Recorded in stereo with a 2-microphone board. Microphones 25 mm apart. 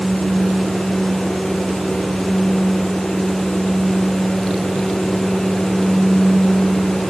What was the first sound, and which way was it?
Only background noise.